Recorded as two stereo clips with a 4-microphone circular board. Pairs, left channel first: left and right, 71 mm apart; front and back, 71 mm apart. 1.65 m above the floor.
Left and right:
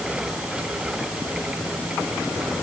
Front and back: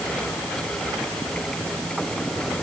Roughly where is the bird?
I don't hear a bird.